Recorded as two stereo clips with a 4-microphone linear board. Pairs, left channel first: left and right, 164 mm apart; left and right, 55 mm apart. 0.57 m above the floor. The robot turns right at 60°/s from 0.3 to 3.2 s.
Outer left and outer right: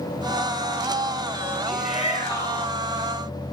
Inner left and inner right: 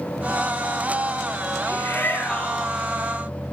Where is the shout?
110° left, 5.5 m; by 2.8 s straight behind, 5.5 m.